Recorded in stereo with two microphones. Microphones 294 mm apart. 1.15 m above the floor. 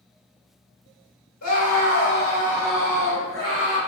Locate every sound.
1.4 s a scream: 75° left (ahead or behind), 1.3 m; by 3.8 s 40° right (ahead or behind), 1.8 m